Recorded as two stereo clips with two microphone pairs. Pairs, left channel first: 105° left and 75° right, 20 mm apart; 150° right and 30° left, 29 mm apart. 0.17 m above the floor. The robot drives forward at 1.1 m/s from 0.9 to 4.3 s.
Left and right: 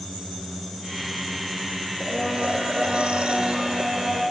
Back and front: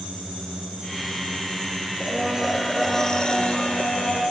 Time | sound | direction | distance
2.0 | a blender | 50° right | 2 m